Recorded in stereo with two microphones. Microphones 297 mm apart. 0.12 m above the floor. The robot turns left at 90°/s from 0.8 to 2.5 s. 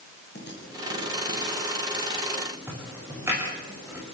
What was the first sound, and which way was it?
Typing on a keyboard, 35° left (ahead or behind).